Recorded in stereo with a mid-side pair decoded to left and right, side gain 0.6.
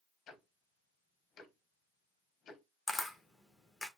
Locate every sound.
0.3 s ticking: 50° left, 1.0 m
2.9 s a camera shutter: 10° left, 1.2 m